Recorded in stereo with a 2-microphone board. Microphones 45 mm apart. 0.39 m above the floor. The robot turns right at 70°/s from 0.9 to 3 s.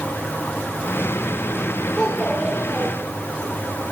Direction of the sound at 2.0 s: 155° left.